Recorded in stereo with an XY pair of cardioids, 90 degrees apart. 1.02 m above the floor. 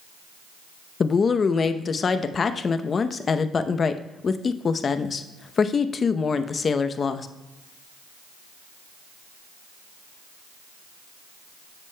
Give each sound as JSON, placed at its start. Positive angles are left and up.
{"t": 1.0, "sound": "a woman speaking", "azimuth_deg": 45, "distance_m": 0.7}